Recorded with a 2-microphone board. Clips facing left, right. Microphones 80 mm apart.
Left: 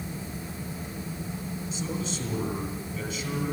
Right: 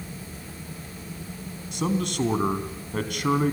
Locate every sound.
1.7 s a man speaking: 60° right (ahead or behind), 3 m